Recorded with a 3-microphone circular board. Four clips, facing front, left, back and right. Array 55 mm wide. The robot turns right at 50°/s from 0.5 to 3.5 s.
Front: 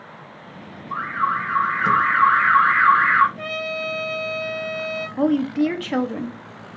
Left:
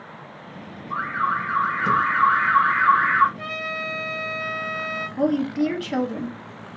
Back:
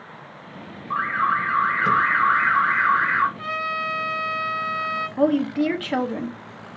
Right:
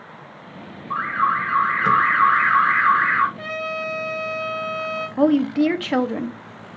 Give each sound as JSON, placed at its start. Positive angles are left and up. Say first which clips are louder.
{"t": 0.9, "sound": "an alarm", "louder": "right 3 dB, back 1 dB", "azimuth_deg": -140, "distance_m": 2.5}
{"t": 3.4, "sound": "a trumpet", "louder": "right 2 dB, back 1 dB", "azimuth_deg": 5, "distance_m": 2.5}
{"t": 5.2, "sound": "a woman speaking", "louder": "right 5 dB, front 1 dB", "azimuth_deg": -90, "distance_m": 0.5}